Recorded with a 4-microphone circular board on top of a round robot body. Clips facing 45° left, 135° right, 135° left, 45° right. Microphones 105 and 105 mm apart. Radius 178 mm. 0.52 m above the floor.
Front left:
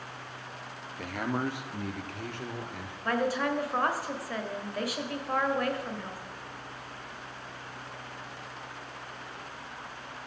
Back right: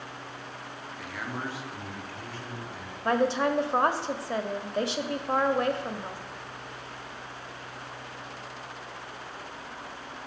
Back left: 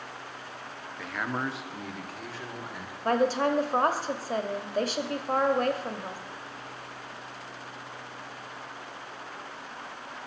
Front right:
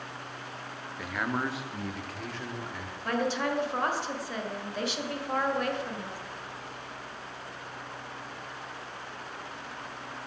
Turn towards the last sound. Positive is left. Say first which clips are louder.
# back right 4 dB, back left 5 dB
turn(degrees=170)